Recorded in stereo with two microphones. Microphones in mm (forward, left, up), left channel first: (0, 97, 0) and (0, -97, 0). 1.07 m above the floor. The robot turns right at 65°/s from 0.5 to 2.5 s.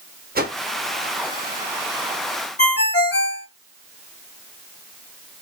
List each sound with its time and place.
0.3 s a whoosh: 50° right (ahead or behind), 0.8 m
2.6 s a ringtone: 60° left (ahead or behind), 1.1 m